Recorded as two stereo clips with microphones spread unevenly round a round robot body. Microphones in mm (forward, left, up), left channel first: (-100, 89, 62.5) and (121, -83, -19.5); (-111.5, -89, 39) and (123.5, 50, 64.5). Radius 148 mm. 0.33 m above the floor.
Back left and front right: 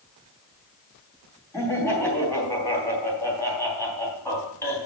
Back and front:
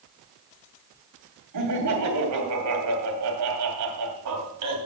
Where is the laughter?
50° left, 3 m.